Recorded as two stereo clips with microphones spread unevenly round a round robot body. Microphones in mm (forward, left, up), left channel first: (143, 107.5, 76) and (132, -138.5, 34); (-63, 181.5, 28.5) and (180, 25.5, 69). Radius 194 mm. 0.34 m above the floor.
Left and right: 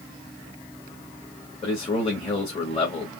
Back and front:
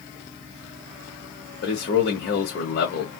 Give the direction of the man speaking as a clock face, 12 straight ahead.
7 o'clock.